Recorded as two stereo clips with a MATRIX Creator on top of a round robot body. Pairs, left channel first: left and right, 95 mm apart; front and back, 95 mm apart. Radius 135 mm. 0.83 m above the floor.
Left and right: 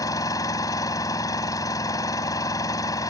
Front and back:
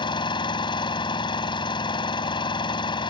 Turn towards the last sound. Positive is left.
turn(degrees=35)